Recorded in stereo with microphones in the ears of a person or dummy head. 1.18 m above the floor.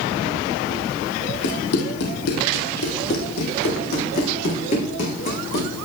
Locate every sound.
1.4 s running footsteps: 65° left (ahead or behind), 2.5 m; by 5.7 s 45° left (ahead or behind), 5 m